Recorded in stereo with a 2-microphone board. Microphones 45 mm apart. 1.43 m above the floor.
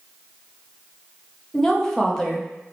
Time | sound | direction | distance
1.5 | a woman speaking | 10° left (ahead or behind) | 0.7 m